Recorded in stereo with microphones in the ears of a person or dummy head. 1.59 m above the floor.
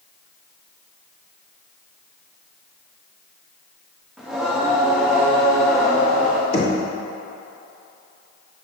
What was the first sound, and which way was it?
Singing, centre (ahead or behind).